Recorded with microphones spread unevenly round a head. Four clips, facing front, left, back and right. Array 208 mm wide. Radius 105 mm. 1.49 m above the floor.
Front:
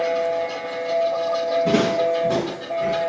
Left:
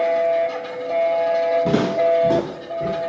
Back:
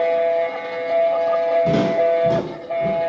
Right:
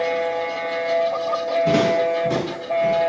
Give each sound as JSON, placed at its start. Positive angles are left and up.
{"t": 1.6, "sound": "footsteps", "azimuth_deg": 75, "distance_m": 3.0}